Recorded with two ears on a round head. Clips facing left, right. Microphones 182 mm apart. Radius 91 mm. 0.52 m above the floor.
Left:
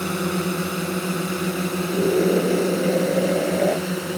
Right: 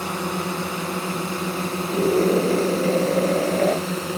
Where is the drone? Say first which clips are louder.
Left 3 dB; 20° left (ahead or behind); by 4.2 s 5° left (ahead or behind).